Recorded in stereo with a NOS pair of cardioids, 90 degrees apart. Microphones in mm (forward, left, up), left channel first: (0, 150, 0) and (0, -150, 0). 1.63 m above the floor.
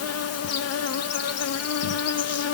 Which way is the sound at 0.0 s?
60° left.